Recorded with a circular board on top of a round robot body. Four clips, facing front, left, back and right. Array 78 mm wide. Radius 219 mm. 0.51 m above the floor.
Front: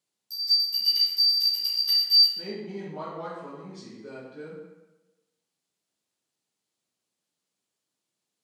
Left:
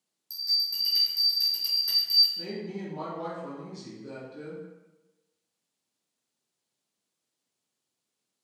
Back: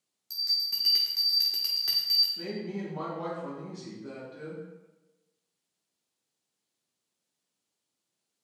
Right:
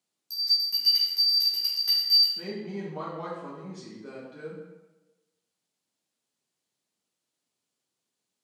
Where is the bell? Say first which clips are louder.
Right 2 dB, front 4 dB; 165° right, 0.6 m.